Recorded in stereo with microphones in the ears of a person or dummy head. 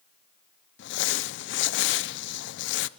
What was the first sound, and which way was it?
Crumpling, 60° left (ahead or behind).